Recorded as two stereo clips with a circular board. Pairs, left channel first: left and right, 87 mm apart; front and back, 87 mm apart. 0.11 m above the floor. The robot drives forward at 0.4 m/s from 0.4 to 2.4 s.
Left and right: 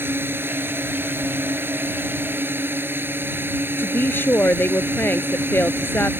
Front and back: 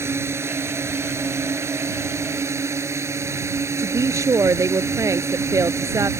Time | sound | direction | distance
0.0 | a drone | 140° right | ?
3.8 | a woman speaking | 145° left | ?